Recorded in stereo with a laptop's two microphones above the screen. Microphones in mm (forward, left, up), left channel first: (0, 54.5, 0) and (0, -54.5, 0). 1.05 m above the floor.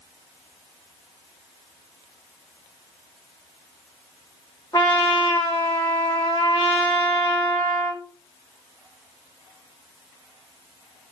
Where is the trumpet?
35° left (ahead or behind), 1.6 m.